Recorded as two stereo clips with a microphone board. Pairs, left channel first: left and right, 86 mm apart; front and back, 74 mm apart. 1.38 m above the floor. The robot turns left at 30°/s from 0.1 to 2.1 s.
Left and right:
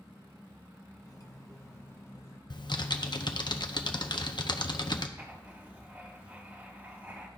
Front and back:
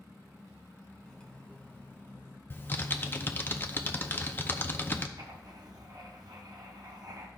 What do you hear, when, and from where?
1.0 s cutlery clinking: 80° left, 0.8 m; by 2.4 s 50° left, 0.8 m
2.5 s typing on a keyboard: 60° left, 0.6 m
5.2 s writing: 155° right, 1.2 m